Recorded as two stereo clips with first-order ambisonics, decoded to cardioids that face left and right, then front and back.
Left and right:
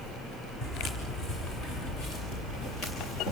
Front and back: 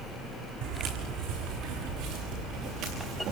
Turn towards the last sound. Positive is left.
turn(degrees=135)